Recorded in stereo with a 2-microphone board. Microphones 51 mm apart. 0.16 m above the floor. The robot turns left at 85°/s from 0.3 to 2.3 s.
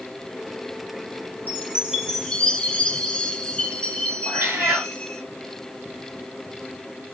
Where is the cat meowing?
60° right (ahead or behind), 1.9 m.